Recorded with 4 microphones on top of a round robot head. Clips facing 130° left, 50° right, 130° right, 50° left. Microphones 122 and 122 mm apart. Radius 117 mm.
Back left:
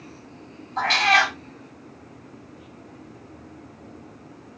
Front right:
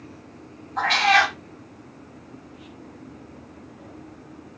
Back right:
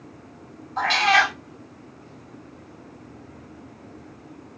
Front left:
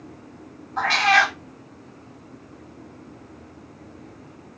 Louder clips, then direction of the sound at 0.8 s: Front right 1 dB, front left 1 dB; 175° left.